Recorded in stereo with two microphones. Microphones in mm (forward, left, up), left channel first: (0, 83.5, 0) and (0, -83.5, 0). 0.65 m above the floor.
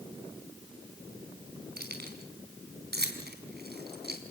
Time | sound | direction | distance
1.8 | keys jangling | 80° right | 4 m